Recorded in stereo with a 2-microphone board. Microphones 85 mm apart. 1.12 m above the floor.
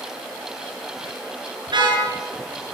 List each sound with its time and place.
1.7 s a car horn: 60° right (ahead or behind), 7.5 m